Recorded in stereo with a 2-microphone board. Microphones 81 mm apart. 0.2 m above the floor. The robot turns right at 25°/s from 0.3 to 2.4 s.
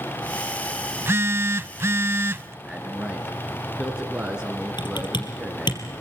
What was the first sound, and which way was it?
A phone buzzing, 110° right.